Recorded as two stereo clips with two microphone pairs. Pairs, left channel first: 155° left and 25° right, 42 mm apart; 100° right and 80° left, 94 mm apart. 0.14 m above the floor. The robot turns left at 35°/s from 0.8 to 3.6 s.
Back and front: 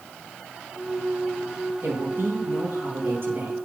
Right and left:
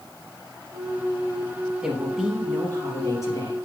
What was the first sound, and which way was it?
A woman speaking, straight ahead.